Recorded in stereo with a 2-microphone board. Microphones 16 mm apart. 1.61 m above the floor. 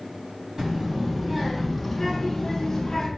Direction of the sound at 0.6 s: 35° right (ahead or behind).